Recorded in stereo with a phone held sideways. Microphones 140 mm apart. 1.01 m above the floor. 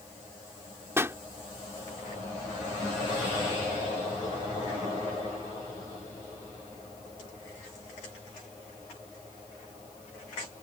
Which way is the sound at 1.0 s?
20° right (ahead or behind).